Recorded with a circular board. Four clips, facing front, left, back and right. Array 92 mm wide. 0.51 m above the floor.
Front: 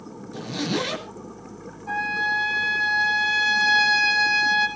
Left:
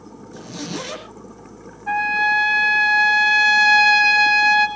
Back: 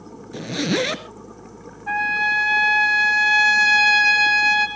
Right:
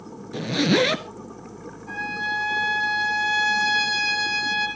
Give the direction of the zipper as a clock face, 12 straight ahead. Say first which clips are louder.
Right 10 dB, back 4 dB; 4 o'clock.